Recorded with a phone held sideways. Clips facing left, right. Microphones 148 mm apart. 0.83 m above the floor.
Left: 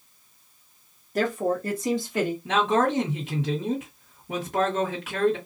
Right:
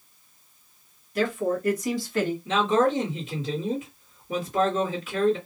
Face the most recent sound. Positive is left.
turn(degrees=65)  # may be behind; listen again after turning